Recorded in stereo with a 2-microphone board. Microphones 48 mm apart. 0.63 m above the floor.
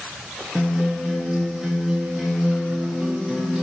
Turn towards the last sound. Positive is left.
turn(degrees=-15)  # may be behind; listen again after turning